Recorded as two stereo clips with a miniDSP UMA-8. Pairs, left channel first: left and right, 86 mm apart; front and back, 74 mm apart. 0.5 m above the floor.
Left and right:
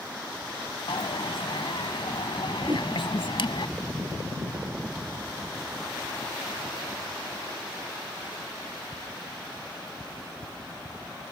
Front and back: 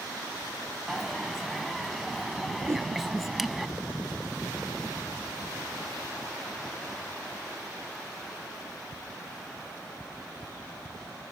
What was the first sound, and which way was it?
A dropped coin, 95° left.